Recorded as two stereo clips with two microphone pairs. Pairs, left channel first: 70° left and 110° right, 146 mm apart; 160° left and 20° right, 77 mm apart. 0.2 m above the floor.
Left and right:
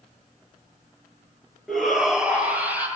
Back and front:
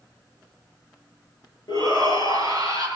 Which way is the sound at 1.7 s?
160° left.